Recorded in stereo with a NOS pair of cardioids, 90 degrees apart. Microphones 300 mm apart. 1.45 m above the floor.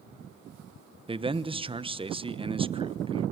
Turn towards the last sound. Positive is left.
turn(degrees=-15)